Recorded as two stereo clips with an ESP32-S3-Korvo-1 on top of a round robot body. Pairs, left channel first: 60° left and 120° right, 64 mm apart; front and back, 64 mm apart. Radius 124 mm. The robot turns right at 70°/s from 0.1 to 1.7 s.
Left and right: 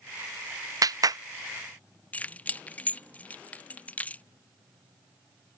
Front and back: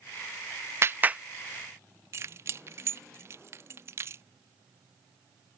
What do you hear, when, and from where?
0.8 s a clap: 135° right; by 1.2 s 105° right
2.1 s keys jangling: 130° left